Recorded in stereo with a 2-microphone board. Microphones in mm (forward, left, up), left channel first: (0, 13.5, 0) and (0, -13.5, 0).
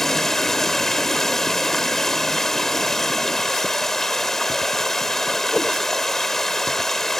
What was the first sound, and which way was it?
Running water, 15° left (ahead or behind).